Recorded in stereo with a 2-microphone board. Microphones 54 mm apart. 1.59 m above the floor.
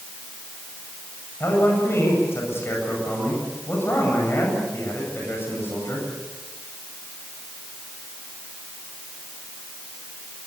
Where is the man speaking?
50° left (ahead or behind), 8.5 m.